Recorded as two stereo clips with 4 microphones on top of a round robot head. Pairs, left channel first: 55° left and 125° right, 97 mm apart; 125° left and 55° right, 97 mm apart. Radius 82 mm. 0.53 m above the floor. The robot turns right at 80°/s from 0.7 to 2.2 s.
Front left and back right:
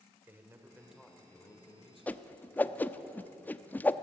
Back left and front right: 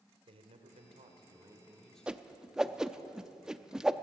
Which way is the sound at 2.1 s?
5° left.